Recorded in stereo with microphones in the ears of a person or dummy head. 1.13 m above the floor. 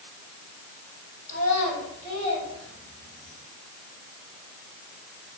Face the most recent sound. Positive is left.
turn(degrees=35)  # may be behind; listen again after turning